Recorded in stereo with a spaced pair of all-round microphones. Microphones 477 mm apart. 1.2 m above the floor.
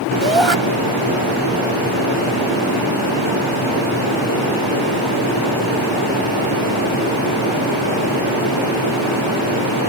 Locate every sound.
0.2 s a shout: 75° right (ahead or behind)